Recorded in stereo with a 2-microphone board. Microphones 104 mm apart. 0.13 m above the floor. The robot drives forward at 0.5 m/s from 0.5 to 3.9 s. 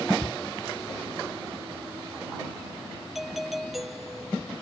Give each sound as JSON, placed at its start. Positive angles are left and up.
{"t": 0.2, "sound": "a shout", "side_deg": 10}
{"t": 3.1, "sound": "a doorbell", "side_deg": 0}